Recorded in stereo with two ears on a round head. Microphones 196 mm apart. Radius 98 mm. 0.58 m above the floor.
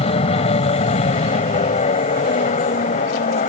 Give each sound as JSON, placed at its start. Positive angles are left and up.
{"t": 0.0, "sound": "an aircraft", "side_deg": 25}